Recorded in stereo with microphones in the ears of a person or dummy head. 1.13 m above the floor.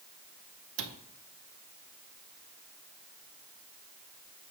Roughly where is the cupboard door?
Right.